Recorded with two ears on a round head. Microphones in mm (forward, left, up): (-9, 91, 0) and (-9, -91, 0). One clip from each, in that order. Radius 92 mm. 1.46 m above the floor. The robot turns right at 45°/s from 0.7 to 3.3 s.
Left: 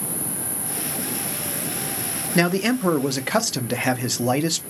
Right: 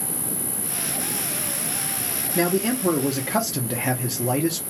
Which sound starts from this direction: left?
A man speaking, at 2.4 s.